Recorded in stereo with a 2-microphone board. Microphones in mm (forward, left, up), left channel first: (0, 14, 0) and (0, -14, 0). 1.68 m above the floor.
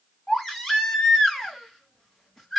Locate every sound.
0.3 s a baby crying: 10° left (ahead or behind), 1.9 m